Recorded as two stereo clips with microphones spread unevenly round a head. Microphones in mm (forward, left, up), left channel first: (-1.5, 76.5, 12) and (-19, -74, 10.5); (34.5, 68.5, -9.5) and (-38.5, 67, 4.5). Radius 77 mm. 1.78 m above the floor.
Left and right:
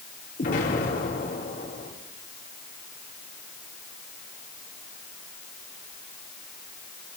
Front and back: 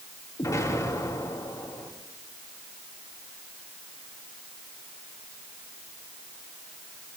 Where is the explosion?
45° left, 5 m.